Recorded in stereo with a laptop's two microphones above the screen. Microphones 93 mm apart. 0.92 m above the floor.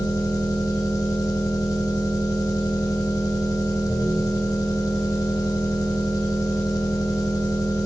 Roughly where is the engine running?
Left.